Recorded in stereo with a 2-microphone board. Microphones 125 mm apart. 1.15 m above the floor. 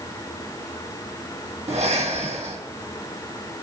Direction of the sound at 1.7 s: 65° right (ahead or behind).